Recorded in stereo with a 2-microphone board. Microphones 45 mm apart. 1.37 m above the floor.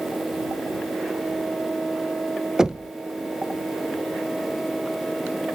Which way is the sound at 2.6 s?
15° right (ahead or behind).